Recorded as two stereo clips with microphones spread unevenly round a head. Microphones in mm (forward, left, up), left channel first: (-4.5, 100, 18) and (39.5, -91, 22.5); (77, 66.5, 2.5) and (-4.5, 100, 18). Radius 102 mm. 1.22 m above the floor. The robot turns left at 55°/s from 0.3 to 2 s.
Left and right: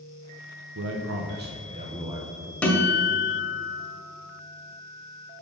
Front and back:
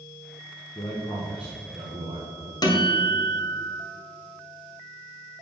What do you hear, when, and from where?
0.8 s a man speaking: 80° right, 0.9 m; by 2.5 s 150° right, 0.9 m
2.6 s a guitar: 20° left, 1.6 m